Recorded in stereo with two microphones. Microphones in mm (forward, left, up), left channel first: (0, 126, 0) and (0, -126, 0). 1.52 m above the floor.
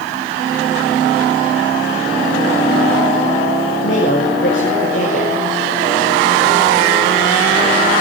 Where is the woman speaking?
50° left (ahead or behind), 6.5 m.